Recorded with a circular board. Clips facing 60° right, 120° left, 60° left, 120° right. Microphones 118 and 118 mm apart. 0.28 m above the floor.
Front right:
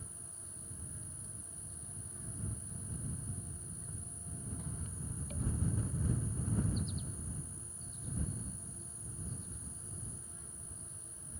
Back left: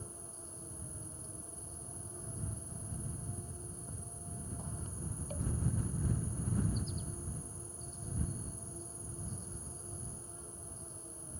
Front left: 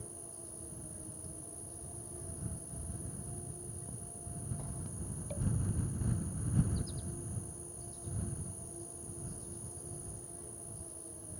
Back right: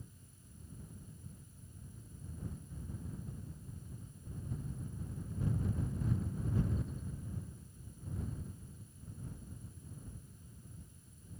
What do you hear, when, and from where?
0.0 s an insect: 60° left